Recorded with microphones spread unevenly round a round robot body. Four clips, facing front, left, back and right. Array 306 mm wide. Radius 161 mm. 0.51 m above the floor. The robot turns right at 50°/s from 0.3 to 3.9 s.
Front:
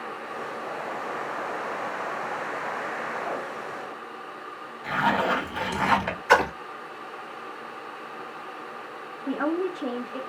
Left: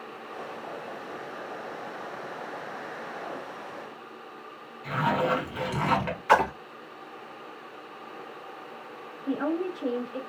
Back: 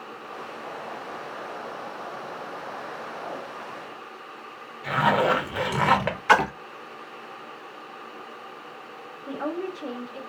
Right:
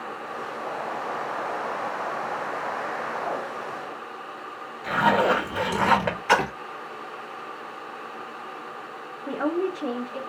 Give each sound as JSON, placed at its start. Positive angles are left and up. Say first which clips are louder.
{"t": 4.8, "sound": "a zipper", "louder": "right 5 dB, back 2 dB", "azimuth_deg": -140, "distance_m": 1.6}
{"t": 6.3, "sound": "a splash", "louder": "left 1 dB, even", "azimuth_deg": -155, "distance_m": 1.1}
{"t": 9.3, "sound": "a woman speaking", "louder": "right 3 dB, front 4 dB", "azimuth_deg": -50, "distance_m": 1.3}